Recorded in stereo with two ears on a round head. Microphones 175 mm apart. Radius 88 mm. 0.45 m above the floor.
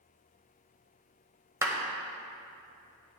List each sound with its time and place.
1.6 s a clap: 15° right (ahead or behind), 1.5 m